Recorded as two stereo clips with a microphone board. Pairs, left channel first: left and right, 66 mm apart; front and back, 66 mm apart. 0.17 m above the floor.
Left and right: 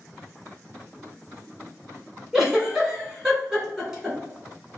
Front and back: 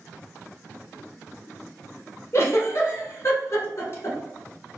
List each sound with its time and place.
2.3 s a giggle: 10° right, 0.8 m